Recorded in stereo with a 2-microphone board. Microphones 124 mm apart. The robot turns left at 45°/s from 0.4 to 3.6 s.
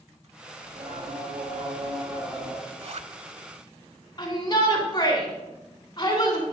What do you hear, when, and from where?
0.6 s singing: 65° right, 2.5 m; by 2.6 s 155° right, 2.5 m
2.7 s a zipper: 50° right (ahead or behind), 0.6 m; by 3.1 s 65° right (ahead or behind), 0.6 m
4.2 s a shout: 35° left (ahead or behind), 3 m